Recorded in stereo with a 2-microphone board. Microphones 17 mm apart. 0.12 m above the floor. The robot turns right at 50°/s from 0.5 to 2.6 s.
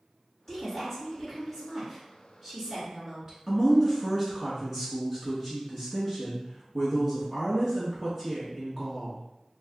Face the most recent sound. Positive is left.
turn(degrees=-10)  # may be behind; listen again after turning